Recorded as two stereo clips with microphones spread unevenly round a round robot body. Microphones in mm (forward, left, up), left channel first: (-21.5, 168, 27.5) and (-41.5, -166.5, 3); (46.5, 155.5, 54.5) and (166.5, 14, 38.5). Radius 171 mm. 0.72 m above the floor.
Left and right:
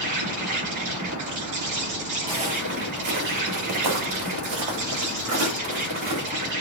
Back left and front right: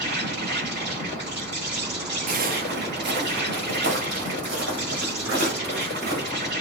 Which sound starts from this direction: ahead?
Footsteps, at 2.3 s.